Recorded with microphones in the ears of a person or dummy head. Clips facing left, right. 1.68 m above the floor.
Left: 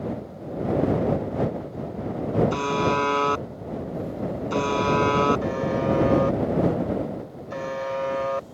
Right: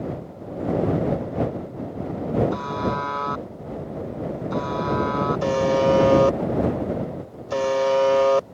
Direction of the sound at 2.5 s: 45° left (ahead or behind).